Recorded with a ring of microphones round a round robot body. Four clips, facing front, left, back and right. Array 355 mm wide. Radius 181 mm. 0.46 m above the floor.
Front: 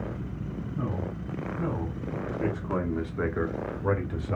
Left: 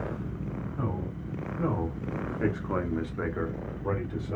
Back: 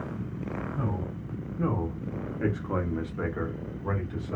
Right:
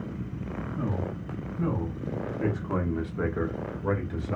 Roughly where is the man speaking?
Behind left.